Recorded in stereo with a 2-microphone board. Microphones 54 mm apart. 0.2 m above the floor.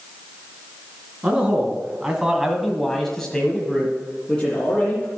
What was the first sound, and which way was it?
A man speaking, 15° right (ahead or behind).